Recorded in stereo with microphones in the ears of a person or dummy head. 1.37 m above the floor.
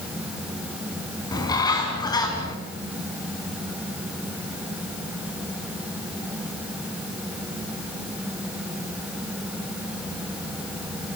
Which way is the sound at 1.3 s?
20° left (ahead or behind).